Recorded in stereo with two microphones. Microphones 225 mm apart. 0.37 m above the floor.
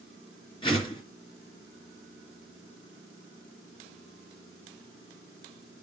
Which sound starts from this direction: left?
A whoosh, at 0.6 s.